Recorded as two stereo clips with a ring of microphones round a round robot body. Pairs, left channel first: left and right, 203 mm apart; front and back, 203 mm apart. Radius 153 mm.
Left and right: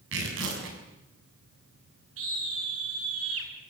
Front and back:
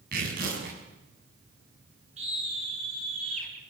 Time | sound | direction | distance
0.1 | tearing paper | 125° right | 6.5 m
2.2 | a scream | 115° right | 7.5 m